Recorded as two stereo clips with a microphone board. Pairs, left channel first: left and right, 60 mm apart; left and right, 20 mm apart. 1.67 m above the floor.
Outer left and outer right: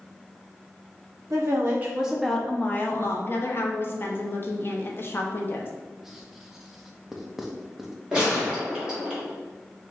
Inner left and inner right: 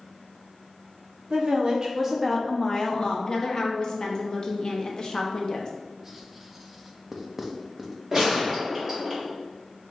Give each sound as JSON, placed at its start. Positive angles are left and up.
{"t": 1.3, "sound": "a woman speaking", "side_deg": -45, "distance_m": 0.8}
{"t": 3.3, "sound": "a woman speaking", "side_deg": 35, "distance_m": 0.7}
{"t": 6.0, "sound": "writing", "side_deg": -5, "distance_m": 0.5}
{"t": 8.1, "sound": "a gunshot", "side_deg": -10, "distance_m": 1.4}